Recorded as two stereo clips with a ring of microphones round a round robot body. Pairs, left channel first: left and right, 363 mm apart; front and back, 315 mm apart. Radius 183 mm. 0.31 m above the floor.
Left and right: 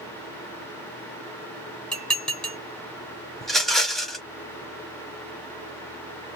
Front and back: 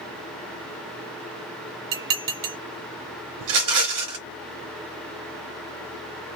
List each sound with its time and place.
1.9 s dishes clattering: straight behind, 1.7 m
3.4 s a rattle: straight behind, 1.2 m